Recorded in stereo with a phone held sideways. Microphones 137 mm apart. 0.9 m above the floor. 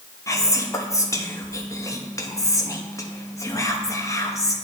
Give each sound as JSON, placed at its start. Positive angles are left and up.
{"t": 0.3, "sound": "whispering", "side_deg": 20, "distance_m": 0.8}